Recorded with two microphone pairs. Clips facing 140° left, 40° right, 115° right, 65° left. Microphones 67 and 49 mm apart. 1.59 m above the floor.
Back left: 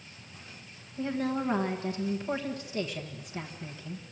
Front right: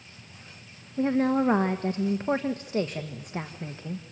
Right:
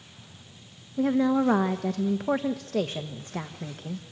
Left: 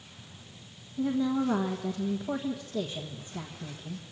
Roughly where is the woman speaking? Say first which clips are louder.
Front right 7 dB, right 5 dB; right.